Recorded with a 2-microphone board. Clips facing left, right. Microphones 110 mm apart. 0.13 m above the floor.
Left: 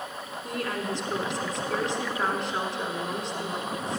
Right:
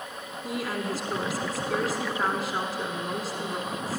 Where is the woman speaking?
5° right (ahead or behind), 1.1 m.